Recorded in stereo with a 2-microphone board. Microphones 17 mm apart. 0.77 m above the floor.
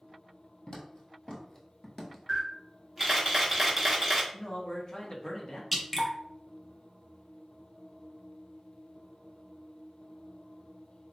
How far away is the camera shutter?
About 0.9 m.